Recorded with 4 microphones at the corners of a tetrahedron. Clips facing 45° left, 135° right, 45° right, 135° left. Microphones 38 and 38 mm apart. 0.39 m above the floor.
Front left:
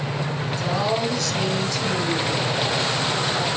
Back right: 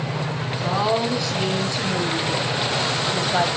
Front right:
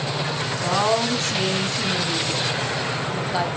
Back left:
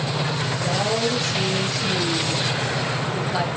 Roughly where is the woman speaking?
Ahead right.